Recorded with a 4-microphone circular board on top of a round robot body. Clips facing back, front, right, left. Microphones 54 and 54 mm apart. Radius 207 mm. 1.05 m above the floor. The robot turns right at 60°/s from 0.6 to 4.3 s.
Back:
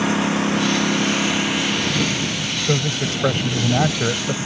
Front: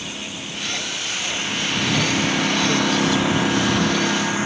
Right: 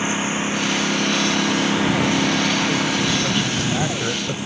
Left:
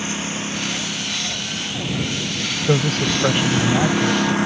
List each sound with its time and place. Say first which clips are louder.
0.0 s a lawn mower: back 13 dB, right 4 dB; 160° right; by 4.5 s 60° left
2.7 s a man speaking: even, left 1 dB; 105° left; by 4.4 s 155° right